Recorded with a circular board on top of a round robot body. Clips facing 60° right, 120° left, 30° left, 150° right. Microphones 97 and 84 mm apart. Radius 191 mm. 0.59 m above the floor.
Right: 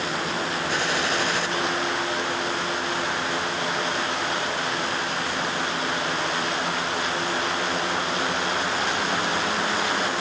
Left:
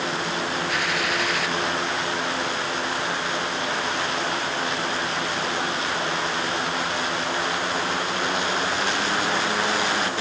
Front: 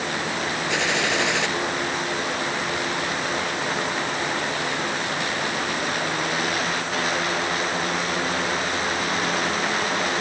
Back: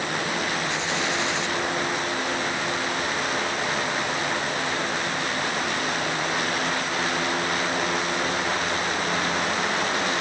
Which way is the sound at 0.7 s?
Straight ahead.